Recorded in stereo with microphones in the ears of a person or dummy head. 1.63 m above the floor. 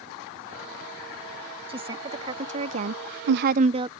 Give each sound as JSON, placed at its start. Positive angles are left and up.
{"t": 1.7, "sound": "a woman speaking", "side_deg": -25}